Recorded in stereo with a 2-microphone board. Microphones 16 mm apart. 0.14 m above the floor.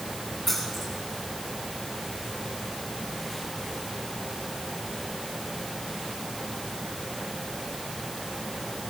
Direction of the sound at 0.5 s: 5° right (ahead or behind).